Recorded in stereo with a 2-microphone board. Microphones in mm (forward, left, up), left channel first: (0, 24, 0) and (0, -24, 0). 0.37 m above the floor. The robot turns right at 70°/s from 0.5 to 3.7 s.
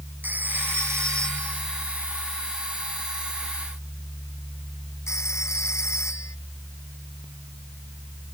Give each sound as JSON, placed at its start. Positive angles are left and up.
{"t": 0.2, "sound": "a phone ringing", "side_deg": -40}